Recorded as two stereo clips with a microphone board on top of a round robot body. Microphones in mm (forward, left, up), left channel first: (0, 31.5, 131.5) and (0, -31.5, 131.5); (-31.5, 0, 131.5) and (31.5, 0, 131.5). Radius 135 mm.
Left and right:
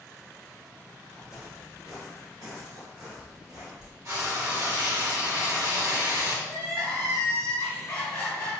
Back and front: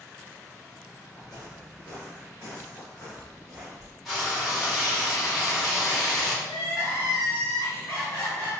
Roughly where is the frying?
Right.